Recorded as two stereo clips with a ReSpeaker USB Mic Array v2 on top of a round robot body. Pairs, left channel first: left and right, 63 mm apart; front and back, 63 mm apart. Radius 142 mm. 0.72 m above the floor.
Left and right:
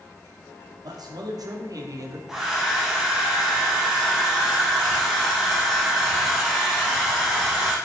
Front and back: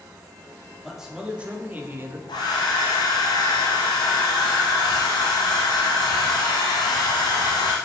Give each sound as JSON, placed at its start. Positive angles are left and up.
{"t": 0.8, "sound": "a man speaking", "azimuth_deg": -95, "distance_m": 1.6}
{"t": 2.3, "sound": "a hair dryer", "azimuth_deg": -5, "distance_m": 0.8}